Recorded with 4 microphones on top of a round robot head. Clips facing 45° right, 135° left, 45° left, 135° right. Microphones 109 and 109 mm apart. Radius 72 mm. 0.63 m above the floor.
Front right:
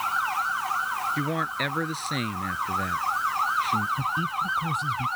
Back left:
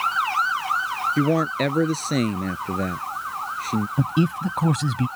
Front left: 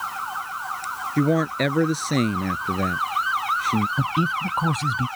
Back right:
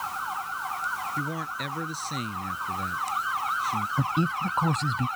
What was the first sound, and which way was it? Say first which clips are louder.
A man speaking: back left 8 dB, front left 12 dB; 80° left.